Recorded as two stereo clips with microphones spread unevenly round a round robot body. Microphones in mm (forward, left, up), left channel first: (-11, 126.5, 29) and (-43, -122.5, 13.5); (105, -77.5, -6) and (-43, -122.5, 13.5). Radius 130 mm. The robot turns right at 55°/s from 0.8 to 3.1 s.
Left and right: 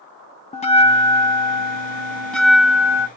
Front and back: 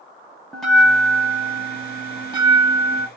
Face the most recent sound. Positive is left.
turn(degrees=-145)